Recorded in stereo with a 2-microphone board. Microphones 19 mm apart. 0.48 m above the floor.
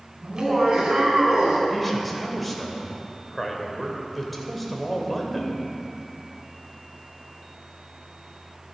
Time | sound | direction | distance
0.2 | laughter | 40° right (ahead or behind) | 4.5 m
1.7 | a man speaking | centre (ahead or behind) | 2.5 m